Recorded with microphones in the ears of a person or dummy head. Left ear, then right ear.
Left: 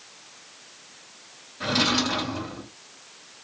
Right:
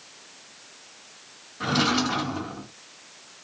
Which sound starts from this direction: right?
A drawer, at 1.6 s.